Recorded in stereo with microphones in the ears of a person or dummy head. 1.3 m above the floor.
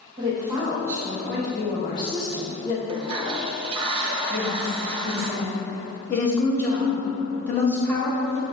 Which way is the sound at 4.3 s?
10° left (ahead or behind).